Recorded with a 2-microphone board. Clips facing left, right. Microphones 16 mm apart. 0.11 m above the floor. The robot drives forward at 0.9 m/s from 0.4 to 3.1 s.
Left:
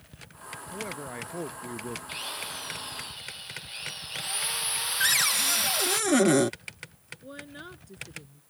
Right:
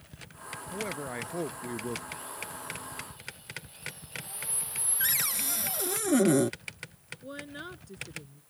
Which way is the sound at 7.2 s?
10° right (ahead or behind).